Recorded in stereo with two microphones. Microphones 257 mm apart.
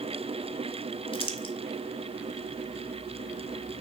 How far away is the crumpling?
About 0.9 m.